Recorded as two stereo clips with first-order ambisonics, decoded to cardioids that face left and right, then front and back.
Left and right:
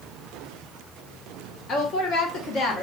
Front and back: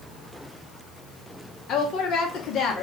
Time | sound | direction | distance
1.7 | a woman speaking | 45° left | 0.7 m